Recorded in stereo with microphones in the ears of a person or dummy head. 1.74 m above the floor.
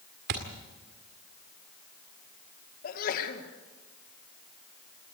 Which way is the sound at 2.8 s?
55° left (ahead or behind).